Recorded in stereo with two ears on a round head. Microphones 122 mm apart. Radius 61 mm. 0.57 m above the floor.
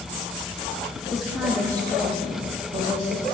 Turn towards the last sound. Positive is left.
turn(degrees=-55)  # may be behind; listen again after turning